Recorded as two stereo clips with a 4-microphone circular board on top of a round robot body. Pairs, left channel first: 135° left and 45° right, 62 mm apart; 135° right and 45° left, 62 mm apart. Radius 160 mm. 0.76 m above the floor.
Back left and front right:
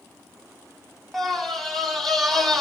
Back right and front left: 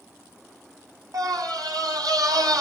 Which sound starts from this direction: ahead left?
A scream, at 1.1 s.